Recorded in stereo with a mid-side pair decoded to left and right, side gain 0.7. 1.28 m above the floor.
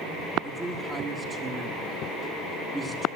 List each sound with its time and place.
0.4 s a man speaking: 25° right, 1.8 m